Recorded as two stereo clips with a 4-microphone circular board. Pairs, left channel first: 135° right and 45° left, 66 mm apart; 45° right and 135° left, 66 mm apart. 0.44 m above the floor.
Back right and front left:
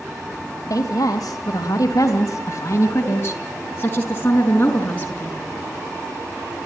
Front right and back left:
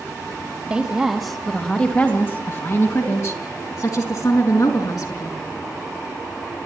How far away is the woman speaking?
About 2 m.